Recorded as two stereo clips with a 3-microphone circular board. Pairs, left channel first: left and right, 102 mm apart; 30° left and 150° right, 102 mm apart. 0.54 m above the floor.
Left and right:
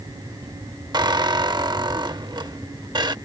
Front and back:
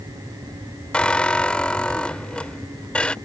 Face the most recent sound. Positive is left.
turn(degrees=-50)